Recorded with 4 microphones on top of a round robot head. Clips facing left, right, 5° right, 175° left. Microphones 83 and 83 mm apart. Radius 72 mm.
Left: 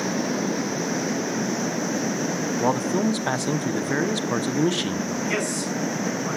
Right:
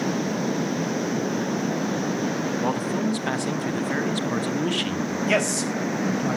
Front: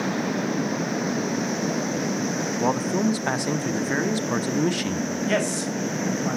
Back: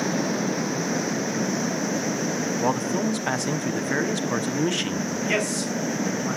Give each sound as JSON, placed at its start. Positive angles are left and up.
{"t": 2.6, "sound": "a man speaking", "azimuth_deg": 70, "distance_m": 1.0}
{"t": 5.3, "sound": "a man speaking", "azimuth_deg": -65, "distance_m": 4.0}